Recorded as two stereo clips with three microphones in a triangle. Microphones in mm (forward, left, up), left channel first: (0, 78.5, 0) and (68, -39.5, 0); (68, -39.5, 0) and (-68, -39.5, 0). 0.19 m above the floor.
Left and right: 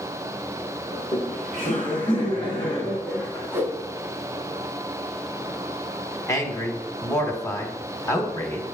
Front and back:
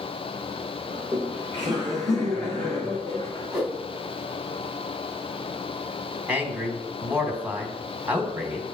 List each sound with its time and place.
0.9 s laughter: 110° left, 2 m; by 3.6 s 50° left, 1.6 m
3.5 s a whoosh: 115° right, 1.1 m
6.3 s a man speaking: 120° left, 1.0 m